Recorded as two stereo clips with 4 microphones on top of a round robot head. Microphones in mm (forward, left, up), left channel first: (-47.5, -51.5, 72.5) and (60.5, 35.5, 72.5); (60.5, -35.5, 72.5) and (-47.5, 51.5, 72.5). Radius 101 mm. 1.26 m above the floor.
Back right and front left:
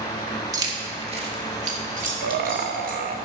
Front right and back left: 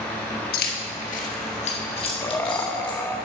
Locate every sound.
0.5 s keys jangling: 25° right, 1.0 m; by 3.0 s 20° left, 1.9 m
2.2 s laughter: 35° left, 0.8 m